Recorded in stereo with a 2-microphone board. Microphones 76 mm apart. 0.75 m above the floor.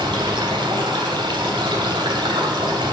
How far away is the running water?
About 2.5 m.